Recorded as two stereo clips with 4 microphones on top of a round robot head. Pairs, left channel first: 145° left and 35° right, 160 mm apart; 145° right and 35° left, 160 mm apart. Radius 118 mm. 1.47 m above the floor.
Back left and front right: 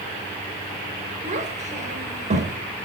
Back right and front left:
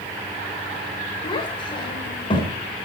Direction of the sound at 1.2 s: 85° right.